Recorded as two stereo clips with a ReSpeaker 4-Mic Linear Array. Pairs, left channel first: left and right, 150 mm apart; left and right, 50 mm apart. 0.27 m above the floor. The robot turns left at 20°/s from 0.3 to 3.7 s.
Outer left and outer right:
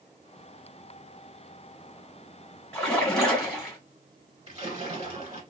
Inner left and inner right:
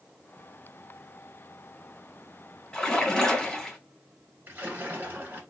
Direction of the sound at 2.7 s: 10° left (ahead or behind).